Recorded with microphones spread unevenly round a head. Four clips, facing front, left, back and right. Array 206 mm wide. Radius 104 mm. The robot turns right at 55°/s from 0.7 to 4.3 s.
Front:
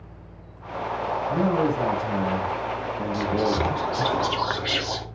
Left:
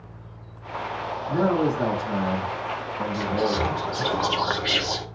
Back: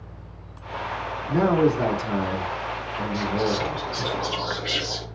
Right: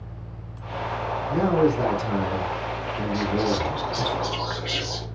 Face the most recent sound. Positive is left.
turn(degrees=65)